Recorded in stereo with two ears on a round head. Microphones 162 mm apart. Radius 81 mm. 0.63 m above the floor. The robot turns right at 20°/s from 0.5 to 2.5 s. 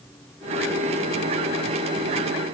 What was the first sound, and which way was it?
Only background noise.